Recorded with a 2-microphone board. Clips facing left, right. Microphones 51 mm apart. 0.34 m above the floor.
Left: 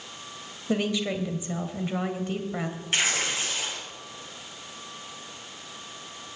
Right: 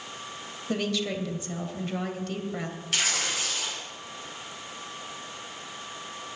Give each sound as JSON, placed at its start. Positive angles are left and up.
{"t": 0.7, "sound": "a woman speaking", "side_deg": 15, "distance_m": 1.7}
{"t": 2.9, "sound": "tearing paper", "side_deg": 30, "distance_m": 3.0}